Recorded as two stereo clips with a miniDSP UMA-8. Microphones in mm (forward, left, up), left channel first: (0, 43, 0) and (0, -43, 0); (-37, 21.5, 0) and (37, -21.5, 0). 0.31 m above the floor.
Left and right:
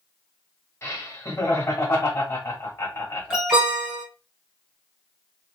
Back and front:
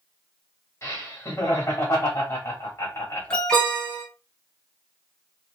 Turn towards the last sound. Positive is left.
turn(degrees=-150)